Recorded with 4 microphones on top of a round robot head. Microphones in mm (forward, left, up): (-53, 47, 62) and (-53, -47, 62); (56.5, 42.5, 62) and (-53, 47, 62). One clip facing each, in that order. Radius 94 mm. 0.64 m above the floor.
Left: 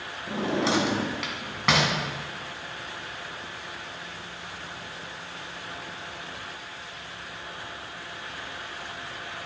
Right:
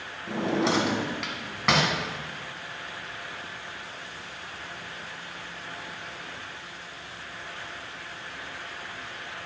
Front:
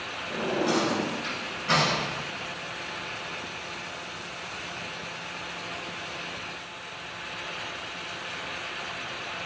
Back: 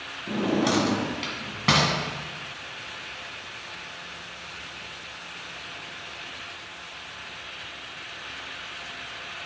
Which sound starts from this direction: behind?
A drawer, at 0.3 s.